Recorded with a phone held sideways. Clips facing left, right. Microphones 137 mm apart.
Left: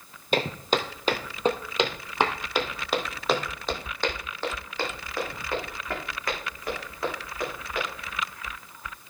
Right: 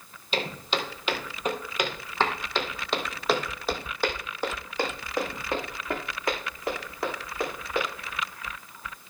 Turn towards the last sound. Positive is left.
turn(degrees=-30)  # may be behind; listen again after turning